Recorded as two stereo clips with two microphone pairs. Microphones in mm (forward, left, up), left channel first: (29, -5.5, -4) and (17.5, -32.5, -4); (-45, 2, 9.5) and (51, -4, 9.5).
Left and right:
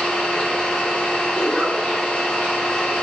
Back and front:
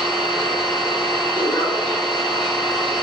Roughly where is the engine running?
Behind left.